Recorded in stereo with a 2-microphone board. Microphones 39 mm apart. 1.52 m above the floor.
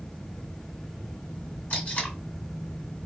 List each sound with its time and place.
1.7 s tape being pulled: 40° left (ahead or behind), 2 m